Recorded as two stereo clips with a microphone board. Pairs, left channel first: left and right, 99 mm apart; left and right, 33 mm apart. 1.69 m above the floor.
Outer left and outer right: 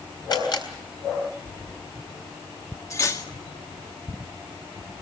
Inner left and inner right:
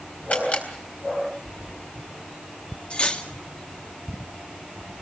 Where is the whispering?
I don't hear whispering.